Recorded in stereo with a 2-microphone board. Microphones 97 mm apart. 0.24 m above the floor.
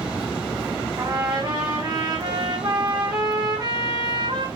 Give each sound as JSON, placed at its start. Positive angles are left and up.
{"t": 1.0, "sound": "a trumpet", "side_deg": -45, "distance_m": 3.5}